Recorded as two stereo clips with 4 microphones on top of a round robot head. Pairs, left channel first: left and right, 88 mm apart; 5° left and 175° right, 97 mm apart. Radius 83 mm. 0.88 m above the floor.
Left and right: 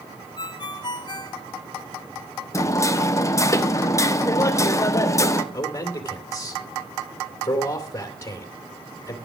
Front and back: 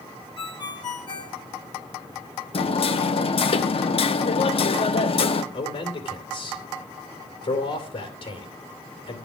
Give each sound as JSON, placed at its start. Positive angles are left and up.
{"t": 0.4, "sound": "a ringtone", "azimuth_deg": 50, "distance_m": 1.9}
{"t": 2.5, "sound": "hammering", "azimuth_deg": 35, "distance_m": 1.1}
{"t": 5.5, "sound": "a man speaking", "azimuth_deg": 30, "distance_m": 3.0}